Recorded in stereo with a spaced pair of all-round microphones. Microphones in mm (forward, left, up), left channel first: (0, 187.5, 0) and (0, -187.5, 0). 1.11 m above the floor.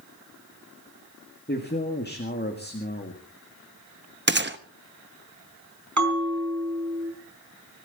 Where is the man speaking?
25° left (ahead or behind), 1.9 m.